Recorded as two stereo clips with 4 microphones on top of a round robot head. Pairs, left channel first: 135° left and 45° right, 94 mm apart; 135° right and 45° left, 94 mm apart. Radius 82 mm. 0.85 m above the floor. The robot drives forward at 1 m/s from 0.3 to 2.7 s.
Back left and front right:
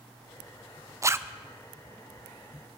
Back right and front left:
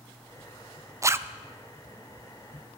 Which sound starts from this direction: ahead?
A zipper, at 1.0 s.